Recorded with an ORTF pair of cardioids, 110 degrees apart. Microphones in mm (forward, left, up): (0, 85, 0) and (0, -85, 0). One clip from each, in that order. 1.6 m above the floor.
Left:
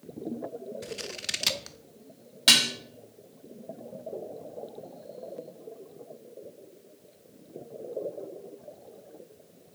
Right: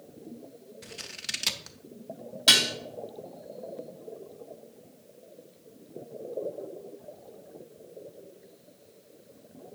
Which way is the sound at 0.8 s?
10° left.